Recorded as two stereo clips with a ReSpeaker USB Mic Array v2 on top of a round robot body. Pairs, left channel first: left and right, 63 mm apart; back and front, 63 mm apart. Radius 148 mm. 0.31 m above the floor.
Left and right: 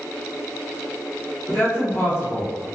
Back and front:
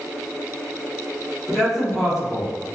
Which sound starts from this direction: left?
A man speaking, at 1.5 s.